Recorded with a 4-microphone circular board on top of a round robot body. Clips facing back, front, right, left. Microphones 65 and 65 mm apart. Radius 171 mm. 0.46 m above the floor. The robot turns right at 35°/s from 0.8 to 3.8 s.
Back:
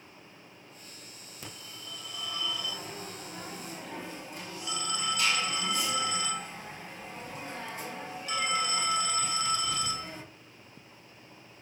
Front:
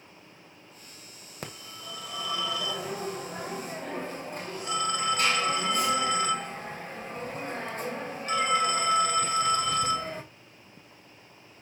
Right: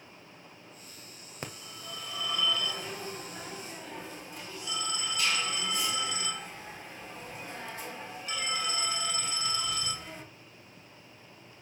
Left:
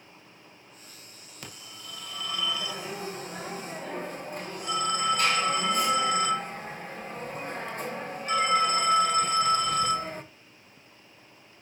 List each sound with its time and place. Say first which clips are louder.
1.4 s a phone ringing: front 5 dB, right 3 dB; 35° right, 1.6 m; by 10.2 s 45° left, 1.6 m